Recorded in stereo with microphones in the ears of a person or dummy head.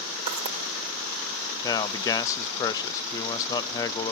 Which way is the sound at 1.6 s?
20° left (ahead or behind).